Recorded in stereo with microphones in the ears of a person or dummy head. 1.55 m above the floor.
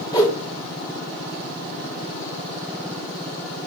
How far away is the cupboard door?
No cupboard door in this recording.